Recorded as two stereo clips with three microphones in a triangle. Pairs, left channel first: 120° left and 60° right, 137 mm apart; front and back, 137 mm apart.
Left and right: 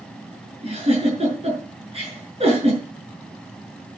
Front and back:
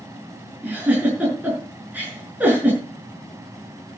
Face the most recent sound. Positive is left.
turn(degrees=-100)